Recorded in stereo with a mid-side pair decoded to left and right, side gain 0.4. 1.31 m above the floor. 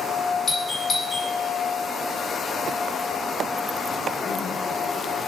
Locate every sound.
0.5 s a doorbell: 35° left, 1.4 m